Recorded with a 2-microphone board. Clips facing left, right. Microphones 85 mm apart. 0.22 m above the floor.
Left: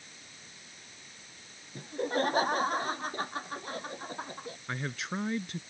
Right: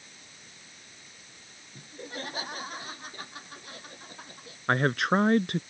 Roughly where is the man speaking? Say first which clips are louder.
Right 13 dB; right.